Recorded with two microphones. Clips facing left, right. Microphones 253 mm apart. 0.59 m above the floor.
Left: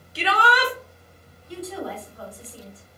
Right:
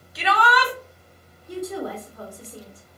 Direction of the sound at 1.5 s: 50° right (ahead or behind).